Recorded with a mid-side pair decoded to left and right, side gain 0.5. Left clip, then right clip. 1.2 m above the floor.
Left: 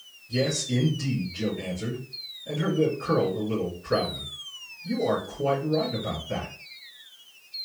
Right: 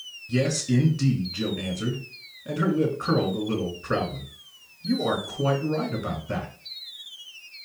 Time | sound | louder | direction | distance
0.3 | a man speaking | right 1 dB | 70° right | 3 m